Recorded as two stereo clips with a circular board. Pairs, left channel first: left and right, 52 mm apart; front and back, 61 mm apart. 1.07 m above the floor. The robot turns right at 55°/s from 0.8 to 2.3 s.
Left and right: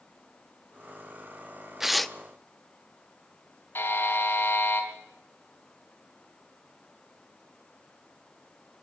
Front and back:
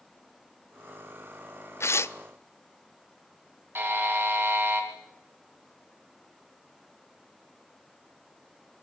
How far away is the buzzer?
About 3.5 m.